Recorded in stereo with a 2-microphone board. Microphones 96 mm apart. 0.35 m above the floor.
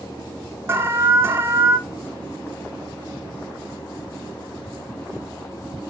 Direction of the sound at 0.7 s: 25° right (ahead or behind).